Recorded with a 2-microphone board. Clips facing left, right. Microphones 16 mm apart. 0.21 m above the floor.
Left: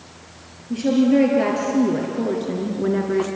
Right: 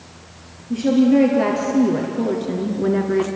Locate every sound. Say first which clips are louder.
0.7 s a woman speaking: right 2 dB; 5° right (ahead or behind), 4 m; by 3.3 s 15° right (ahead or behind), 2.5 m